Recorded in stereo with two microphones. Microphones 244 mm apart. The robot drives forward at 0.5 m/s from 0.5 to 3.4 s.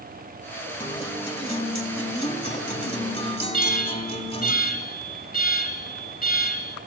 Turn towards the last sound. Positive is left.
turn(degrees=40)  # may be behind; listen again after turning